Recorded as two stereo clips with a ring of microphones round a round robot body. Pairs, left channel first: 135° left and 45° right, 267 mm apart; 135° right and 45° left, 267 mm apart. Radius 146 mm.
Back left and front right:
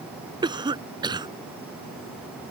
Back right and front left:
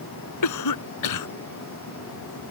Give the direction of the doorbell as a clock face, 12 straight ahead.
I don't hear a doorbell.